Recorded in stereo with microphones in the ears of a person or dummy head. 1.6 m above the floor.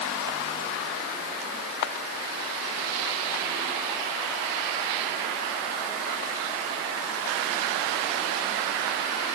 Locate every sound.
Only background noise.